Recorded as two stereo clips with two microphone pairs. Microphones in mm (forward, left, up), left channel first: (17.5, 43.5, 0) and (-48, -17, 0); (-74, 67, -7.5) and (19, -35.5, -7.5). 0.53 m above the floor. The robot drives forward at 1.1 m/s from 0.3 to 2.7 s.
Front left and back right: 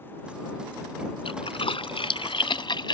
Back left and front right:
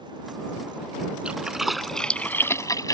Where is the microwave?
I don't hear a microwave.